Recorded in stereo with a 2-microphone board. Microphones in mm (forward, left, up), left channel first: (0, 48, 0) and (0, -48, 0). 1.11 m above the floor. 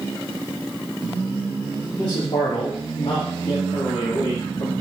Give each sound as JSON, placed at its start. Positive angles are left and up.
{"t": 2.0, "sound": "a man speaking", "side_deg": 50, "distance_m": 2.0}